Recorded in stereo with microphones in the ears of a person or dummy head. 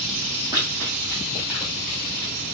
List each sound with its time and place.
0.5 s running footsteps: 20° right (ahead or behind), 3 m; by 2.3 s centre (ahead or behind), 2.5 m